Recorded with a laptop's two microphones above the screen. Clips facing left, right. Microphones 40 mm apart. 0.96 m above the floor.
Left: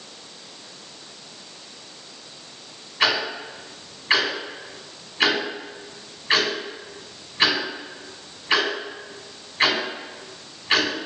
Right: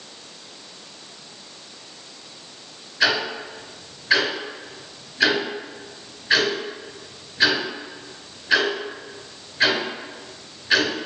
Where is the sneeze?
I don't hear a sneeze.